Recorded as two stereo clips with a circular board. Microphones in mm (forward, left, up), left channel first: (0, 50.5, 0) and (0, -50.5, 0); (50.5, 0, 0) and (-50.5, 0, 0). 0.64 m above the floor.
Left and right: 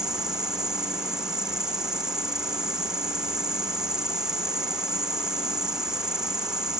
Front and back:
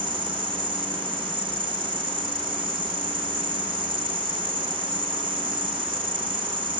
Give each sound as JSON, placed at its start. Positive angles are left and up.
{"t": 0.0, "sound": "an insect", "azimuth_deg": -170}